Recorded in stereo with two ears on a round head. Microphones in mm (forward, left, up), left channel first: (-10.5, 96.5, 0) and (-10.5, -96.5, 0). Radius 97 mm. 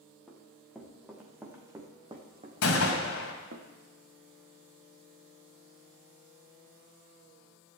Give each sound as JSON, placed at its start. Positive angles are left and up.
{"t": 0.3, "sound": "running footsteps", "side_deg": 5, "distance_m": 3.0}
{"t": 2.6, "sound": "a gunshot", "side_deg": 70, "distance_m": 2.0}